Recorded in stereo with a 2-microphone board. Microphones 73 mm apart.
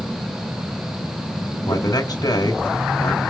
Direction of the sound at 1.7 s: 60° left (ahead or behind).